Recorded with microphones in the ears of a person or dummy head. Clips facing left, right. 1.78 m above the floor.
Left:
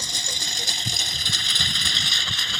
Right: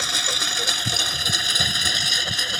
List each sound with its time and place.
0.0 s a lawn mower: 60° right (ahead or behind); by 2.6 s 40° right (ahead or behind)